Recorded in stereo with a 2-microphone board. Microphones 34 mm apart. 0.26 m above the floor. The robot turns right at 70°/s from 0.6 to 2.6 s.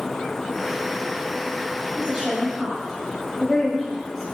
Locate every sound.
2.0 s a woman speaking: 20° right (ahead or behind), 1.0 m; by 4.2 s 5° right (ahead or behind), 1.0 m